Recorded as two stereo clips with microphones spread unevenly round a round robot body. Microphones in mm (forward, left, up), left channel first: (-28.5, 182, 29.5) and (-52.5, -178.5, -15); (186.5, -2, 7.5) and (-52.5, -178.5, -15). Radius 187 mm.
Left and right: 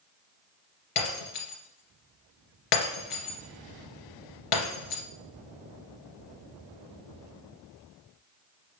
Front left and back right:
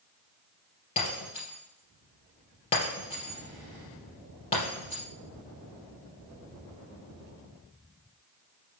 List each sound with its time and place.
1.0 s breaking glass: 110° left, 2.5 m